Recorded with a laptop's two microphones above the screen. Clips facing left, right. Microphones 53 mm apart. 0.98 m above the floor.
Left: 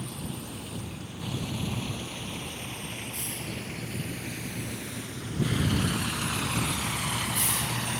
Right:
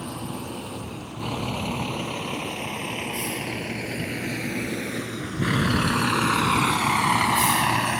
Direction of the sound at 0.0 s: 50° right (ahead or behind).